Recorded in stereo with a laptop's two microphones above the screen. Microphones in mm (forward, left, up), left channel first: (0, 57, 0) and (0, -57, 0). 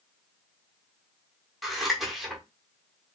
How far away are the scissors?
About 1.2 m.